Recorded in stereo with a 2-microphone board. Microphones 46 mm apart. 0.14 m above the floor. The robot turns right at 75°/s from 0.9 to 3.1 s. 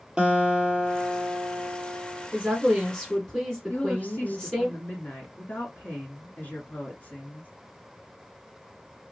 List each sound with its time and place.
0.2 s a guitar: 155° right, 1.0 m; by 2.3 s 50° right, 1.0 m
2.3 s a woman speaking: 40° right, 1.6 m; by 4.7 s 20° left, 1.6 m
3.7 s a woman speaking: 40° left (ahead or behind), 1.6 m